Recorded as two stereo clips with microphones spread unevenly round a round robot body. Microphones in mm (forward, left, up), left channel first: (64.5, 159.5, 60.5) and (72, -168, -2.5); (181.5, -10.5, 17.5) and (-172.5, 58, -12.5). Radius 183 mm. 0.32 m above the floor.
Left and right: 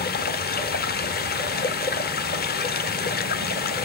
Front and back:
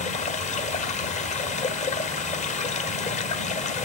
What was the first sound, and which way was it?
Running water, 45° left.